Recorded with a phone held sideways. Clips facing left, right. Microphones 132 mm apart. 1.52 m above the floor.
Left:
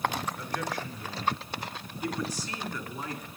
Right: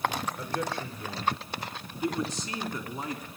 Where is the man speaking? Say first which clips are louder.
Right 1 dB; 35° right (ahead or behind), 4.5 m; by 3.2 s 25° right (ahead or behind), 3 m.